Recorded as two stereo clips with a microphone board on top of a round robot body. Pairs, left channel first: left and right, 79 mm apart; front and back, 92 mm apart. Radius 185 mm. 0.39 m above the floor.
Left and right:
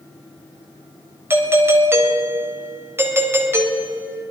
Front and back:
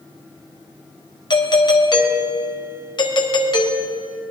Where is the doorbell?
30° right, 3.5 m.